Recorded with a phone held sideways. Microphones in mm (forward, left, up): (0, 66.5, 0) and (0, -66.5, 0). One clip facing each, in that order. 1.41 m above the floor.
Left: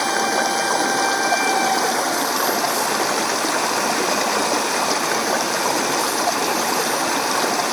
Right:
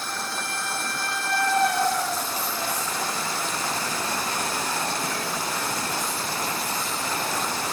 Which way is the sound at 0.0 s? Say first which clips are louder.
Left 13 dB; 80° left.